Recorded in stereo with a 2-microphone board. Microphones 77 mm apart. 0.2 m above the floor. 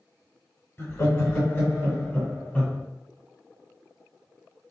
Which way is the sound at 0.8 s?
35° left (ahead or behind).